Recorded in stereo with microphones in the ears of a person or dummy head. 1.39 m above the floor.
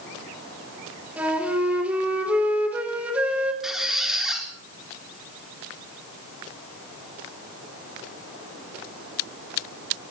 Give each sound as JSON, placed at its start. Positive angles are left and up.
{"t": 1.2, "sound": "a flute", "side_deg": -10, "distance_m": 2.5}
{"t": 3.6, "sound": "a squeak", "side_deg": 0, "distance_m": 3.5}